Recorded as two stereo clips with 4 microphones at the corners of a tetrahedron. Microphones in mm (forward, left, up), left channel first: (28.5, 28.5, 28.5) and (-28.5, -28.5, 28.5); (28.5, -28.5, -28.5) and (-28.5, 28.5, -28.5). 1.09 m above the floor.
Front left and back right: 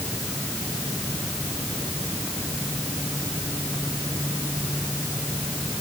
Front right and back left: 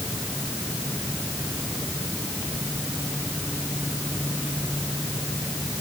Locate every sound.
Only background noise.